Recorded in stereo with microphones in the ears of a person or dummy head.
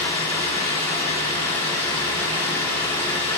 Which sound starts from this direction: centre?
Running water, at 0.0 s.